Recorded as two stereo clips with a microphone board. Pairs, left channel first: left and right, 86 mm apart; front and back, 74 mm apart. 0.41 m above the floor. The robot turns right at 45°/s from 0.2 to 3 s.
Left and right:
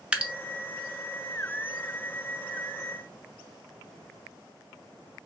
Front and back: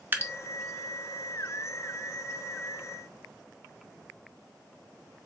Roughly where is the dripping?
Behind right.